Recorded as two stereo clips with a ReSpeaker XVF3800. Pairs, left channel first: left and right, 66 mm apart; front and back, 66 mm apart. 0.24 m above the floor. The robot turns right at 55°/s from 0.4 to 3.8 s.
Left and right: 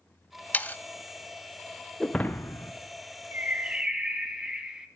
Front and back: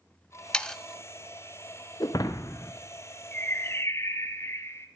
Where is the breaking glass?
5° left, 1.2 m; by 2.7 s 45° left, 1.2 m.